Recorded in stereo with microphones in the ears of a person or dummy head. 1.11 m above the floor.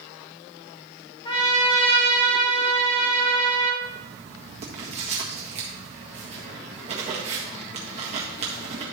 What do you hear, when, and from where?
1.2 s a trumpet: 25° left (ahead or behind), 1.5 m
3.8 s writing: 40° right (ahead or behind), 1.6 m